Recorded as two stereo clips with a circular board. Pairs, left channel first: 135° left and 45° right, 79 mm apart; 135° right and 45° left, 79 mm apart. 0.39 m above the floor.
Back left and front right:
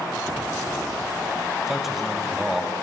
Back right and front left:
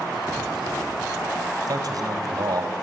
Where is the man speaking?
45° left, 2.5 m.